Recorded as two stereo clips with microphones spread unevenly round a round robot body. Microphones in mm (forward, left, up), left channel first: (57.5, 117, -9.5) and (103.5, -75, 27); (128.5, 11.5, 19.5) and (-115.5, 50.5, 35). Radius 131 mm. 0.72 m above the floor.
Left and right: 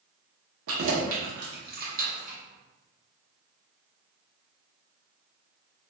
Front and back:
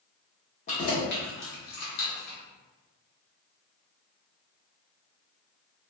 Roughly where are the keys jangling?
Right.